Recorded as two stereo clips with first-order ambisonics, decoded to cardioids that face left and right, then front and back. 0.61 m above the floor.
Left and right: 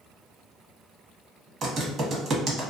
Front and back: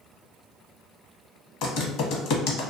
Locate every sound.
1.6 s typing on a keyboard: 25° right, 0.7 m